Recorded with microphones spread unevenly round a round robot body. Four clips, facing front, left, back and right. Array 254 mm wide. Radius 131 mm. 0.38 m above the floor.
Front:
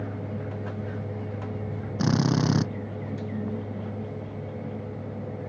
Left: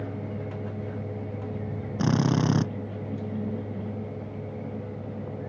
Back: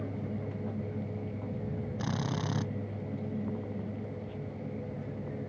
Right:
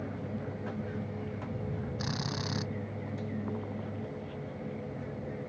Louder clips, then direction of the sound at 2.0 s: Left 12 dB, front 12 dB; 55° left.